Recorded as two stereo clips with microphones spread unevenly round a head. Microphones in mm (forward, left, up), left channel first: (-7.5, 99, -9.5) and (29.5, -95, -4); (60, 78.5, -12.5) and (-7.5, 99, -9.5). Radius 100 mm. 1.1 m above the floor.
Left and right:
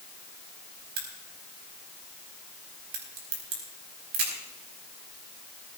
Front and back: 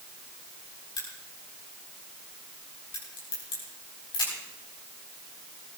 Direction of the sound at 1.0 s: 40° right.